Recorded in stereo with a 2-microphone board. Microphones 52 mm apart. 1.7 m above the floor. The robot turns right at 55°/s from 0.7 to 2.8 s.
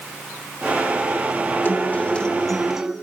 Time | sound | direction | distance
1.6 | a guitar | 125° left | 1.1 m